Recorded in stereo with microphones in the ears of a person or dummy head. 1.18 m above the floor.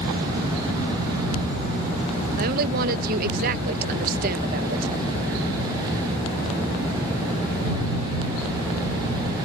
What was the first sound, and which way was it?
A woman speaking, 55° right (ahead or behind).